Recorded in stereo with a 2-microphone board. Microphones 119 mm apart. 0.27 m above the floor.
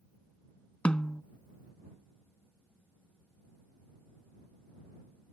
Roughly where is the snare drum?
Centre.